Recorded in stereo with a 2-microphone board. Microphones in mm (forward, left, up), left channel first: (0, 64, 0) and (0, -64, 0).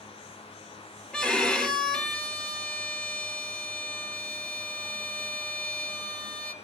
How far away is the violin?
About 1.6 m.